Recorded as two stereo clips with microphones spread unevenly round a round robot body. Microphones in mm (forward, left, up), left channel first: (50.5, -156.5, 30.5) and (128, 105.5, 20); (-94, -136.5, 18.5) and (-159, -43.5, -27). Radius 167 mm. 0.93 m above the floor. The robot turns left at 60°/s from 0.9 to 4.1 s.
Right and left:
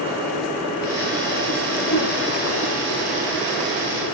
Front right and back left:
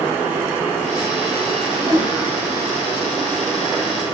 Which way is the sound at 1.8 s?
175° right.